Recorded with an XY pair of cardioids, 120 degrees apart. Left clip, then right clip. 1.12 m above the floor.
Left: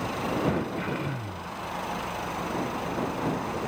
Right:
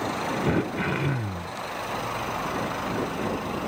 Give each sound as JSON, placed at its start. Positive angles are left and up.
{"t": 0.5, "sound": "throat clearing", "azimuth_deg": -35}